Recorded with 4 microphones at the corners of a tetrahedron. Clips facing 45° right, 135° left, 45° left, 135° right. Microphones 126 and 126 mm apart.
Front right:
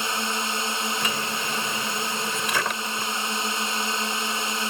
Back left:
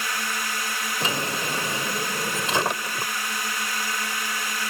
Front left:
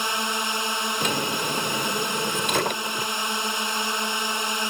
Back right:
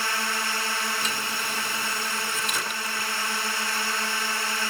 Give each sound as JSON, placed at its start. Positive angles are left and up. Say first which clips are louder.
{"t": 0.0, "sound": "a drone", "louder": "front right 2 dB, front left 2 dB", "azimuth_deg": -5}
{"t": 1.0, "sound": "a drawer", "louder": "back left 1 dB, front left 6 dB", "azimuth_deg": 70}